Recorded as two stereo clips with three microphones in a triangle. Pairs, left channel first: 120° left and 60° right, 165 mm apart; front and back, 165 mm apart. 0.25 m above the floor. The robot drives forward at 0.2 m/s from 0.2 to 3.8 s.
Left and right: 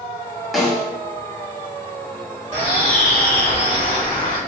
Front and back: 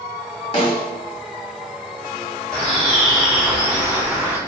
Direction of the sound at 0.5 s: 30° left.